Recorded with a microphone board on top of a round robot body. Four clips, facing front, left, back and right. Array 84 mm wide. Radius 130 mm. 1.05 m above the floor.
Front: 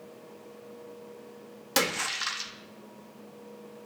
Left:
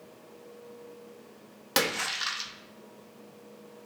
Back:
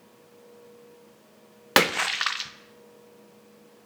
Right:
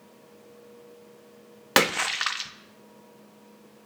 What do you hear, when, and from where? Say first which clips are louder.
1.8 s a splash: right 6 dB, back 7 dB; 145° right, 0.7 m